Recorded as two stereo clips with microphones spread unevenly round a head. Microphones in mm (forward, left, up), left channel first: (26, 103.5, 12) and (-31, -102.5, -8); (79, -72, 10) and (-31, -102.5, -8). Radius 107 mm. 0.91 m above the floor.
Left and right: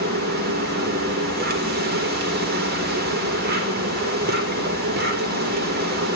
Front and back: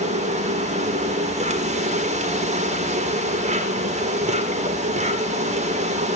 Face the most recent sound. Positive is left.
turn(degrees=-150)